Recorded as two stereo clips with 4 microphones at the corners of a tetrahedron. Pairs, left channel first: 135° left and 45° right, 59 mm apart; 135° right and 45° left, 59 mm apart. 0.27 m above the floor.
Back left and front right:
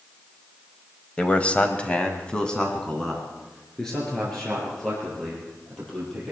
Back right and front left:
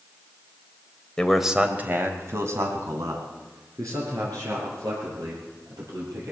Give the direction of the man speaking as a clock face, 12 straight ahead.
6 o'clock.